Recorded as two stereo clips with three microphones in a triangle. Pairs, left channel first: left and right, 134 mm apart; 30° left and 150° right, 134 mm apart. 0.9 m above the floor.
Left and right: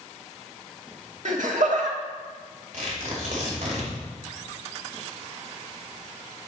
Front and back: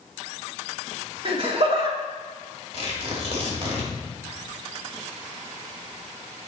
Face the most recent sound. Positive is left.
turn(degrees=-110)